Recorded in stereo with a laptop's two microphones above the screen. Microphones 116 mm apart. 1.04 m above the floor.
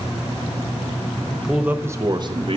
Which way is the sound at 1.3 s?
5° left (ahead or behind).